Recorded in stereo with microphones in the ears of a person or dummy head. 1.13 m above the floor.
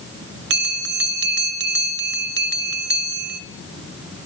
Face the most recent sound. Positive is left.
turn(degrees=-55)  # may be behind; listen again after turning